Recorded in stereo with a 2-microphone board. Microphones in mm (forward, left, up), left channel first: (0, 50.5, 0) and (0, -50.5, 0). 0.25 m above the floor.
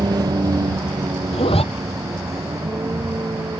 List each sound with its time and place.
0.0 s a vehicle: 45° right (ahead or behind); by 3.6 s 30° right (ahead or behind)
1.3 s a zipper: 75° left (ahead or behind)